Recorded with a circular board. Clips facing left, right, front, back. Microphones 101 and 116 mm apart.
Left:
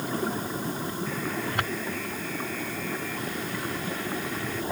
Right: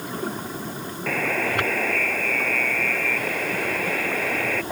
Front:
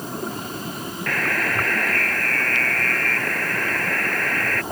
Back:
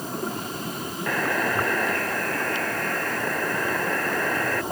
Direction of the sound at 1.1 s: 105° right.